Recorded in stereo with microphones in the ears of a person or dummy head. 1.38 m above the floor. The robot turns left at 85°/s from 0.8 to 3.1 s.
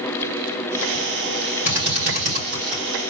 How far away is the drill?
About 3.5 m.